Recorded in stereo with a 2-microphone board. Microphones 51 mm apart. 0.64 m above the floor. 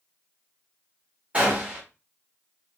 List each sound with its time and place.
1.3 s a gunshot: 25° right (ahead or behind), 1.2 m